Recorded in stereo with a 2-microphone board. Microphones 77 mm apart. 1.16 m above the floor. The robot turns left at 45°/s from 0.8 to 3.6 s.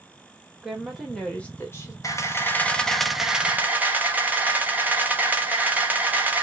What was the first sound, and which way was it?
A woman speaking, 170° right.